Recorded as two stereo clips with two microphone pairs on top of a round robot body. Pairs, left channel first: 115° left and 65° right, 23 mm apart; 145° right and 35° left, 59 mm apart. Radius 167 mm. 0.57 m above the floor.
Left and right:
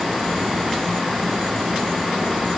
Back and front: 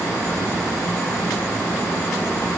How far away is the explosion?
I don't hear an explosion.